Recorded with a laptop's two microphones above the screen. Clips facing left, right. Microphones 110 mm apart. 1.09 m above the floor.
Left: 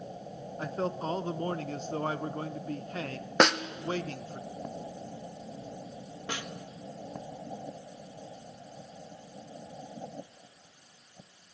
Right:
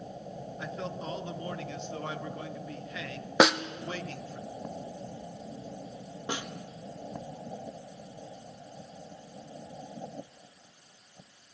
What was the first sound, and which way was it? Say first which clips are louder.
A man speaking: left 6 dB; 40° left (ahead or behind).